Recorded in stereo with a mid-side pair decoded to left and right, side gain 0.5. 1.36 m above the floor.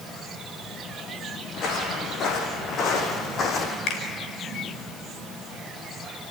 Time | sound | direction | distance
1.5 | footsteps | 60° left | 4.5 m
3.9 | a finger snap | 70° left | 4.5 m